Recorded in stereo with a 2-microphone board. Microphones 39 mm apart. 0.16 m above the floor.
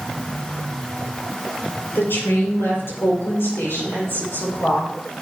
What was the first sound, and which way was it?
A woman speaking, 65° left (ahead or behind).